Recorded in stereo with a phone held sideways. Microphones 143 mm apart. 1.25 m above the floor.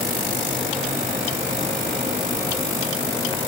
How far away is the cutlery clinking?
No cutlery clinking in this recording.